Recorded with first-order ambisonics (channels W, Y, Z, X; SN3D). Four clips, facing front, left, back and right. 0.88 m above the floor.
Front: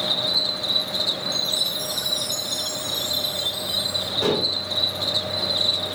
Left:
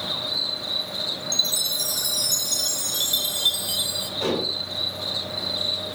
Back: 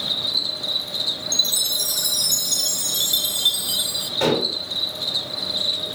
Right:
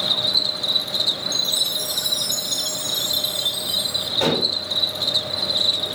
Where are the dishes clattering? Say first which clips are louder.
Right 4 dB, back 2 dB; 140° right, 3 m.